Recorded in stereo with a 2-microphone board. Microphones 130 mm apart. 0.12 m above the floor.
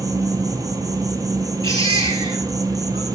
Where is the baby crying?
40° right (ahead or behind), 1.5 m.